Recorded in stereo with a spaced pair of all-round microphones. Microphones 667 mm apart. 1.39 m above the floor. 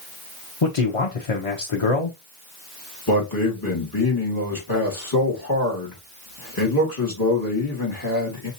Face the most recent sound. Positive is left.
turn(degrees=30)  # may be behind; listen again after turning